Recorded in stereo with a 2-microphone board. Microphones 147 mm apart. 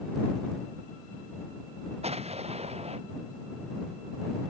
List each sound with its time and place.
2.0 s an explosion: 45° right (ahead or behind)